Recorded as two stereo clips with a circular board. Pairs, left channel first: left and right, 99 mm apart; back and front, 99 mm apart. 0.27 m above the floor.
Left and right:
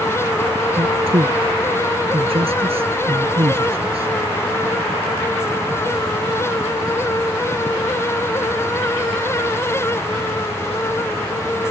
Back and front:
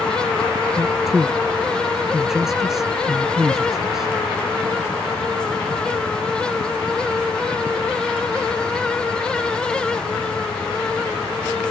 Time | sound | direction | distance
0.8 | a man speaking | 85° right | ?